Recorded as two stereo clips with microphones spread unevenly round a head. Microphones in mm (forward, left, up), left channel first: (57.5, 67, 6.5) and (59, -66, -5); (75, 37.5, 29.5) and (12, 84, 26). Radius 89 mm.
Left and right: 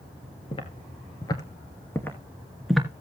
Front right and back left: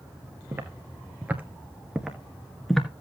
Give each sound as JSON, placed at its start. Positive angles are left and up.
{"t": 0.5, "sound": "footsteps", "azimuth_deg": 95, "distance_m": 1.9}